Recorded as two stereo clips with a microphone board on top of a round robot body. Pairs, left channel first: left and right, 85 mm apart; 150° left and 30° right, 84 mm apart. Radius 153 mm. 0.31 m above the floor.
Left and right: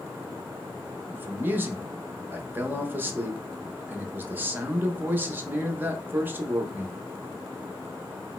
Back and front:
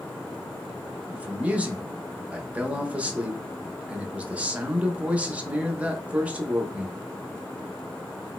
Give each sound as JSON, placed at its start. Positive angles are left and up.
{"t": 1.1, "sound": "a man speaking", "azimuth_deg": -80, "distance_m": 0.8}